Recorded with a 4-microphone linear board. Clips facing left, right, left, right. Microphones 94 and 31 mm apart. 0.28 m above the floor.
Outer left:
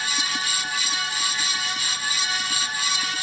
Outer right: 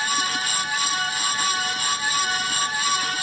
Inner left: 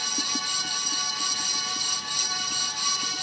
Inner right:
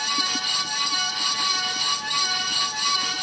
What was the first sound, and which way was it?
Only background noise.